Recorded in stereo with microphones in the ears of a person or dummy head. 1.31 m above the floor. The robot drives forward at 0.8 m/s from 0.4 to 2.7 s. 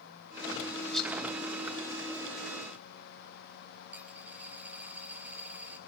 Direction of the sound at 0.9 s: Centre (ahead or behind).